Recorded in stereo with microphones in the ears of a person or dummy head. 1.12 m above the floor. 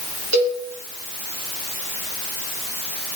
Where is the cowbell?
75° right (ahead or behind), 3 m.